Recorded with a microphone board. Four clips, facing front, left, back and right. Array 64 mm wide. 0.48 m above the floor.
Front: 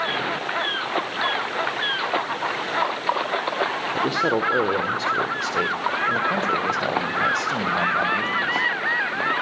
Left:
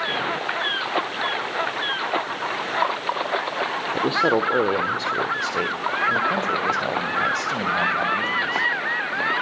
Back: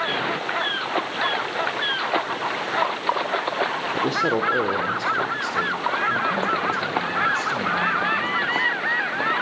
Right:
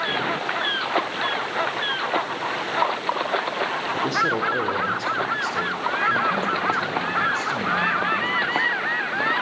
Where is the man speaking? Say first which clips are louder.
Left 3 dB, even; 90° left, 1.5 m; by 8.7 s 40° left, 4 m.